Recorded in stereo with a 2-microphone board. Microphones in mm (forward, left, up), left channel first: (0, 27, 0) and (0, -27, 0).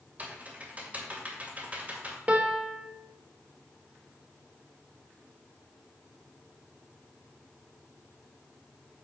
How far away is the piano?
About 1.2 m.